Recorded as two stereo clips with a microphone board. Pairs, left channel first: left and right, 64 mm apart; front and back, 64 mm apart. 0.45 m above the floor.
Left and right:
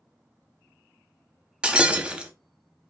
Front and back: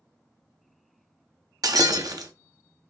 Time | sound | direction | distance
1.6 | breaking glass | 165° right | 0.7 m